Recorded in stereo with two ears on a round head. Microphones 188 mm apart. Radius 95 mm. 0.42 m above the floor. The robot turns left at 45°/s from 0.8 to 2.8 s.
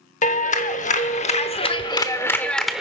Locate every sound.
0.2 s a clap: 85° left, 0.8 m; by 2.8 s 5° right, 0.8 m